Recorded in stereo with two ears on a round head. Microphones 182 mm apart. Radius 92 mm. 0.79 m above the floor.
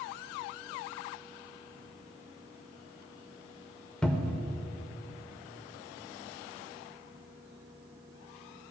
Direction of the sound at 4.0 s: 5° left (ahead or behind).